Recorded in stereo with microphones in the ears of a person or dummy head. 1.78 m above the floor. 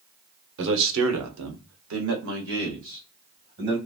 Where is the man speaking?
60° right (ahead or behind), 0.8 m; by 3.8 s 50° right (ahead or behind), 1.8 m.